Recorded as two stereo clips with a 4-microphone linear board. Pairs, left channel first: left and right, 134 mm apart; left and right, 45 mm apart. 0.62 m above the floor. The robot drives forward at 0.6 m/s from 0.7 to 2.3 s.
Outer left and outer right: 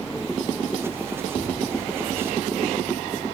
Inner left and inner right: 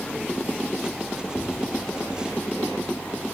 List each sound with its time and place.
1.4 s tapping: 30° left (ahead or behind), 2 m